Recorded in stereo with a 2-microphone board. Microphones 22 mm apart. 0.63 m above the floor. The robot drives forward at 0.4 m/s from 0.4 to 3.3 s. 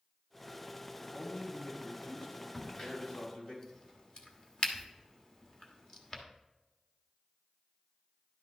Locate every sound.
1.0 s a man speaking: 65° left (ahead or behind), 3.5 m; by 3.5 s 75° left (ahead or behind), 3.5 m
2.5 s a crack: 35° left (ahead or behind), 1.3 m